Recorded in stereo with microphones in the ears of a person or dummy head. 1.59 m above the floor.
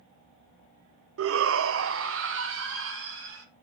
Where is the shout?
85° right, 0.6 m; by 3.5 s 75° right (ahead or behind), 3 m.